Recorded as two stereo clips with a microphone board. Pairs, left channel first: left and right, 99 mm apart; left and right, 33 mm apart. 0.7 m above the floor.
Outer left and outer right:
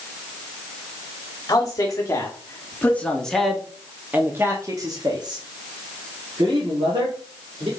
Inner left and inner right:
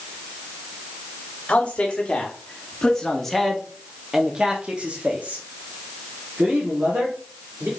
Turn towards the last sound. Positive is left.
turn(degrees=-70)  # may be behind; listen again after turning